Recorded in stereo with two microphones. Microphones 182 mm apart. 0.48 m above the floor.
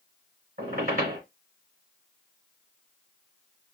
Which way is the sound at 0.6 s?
50° right (ahead or behind).